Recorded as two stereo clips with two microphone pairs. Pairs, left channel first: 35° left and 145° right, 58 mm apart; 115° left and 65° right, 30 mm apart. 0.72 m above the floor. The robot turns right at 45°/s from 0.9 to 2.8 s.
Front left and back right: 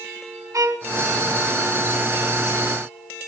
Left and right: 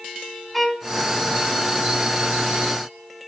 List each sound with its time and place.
0.5 s a violin: 155° right, 1.5 m